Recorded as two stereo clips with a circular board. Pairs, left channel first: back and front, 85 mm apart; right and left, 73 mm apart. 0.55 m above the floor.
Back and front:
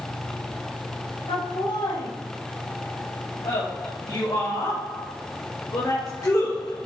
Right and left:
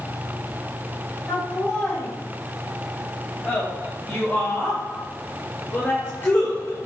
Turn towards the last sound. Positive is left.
turn(degrees=-135)